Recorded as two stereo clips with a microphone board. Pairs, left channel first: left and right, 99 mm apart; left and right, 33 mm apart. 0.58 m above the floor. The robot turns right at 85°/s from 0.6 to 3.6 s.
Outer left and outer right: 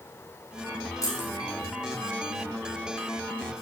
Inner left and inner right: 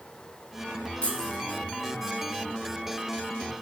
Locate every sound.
1.0 s keys jangling: 35° left (ahead or behind), 3.5 m; by 1.4 s centre (ahead or behind), 3.5 m